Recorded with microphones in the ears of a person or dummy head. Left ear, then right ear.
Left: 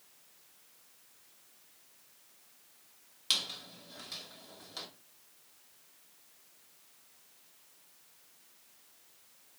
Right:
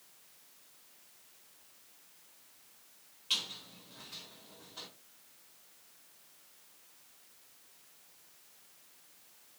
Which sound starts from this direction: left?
A squeak, at 3.3 s.